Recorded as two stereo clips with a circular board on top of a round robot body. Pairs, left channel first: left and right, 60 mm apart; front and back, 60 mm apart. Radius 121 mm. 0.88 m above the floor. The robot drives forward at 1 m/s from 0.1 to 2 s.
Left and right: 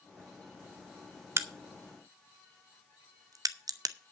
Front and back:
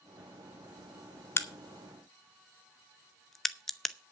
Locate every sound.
1.4 s a crack: 45° right, 1.0 m; by 4.0 s 85° right, 0.8 m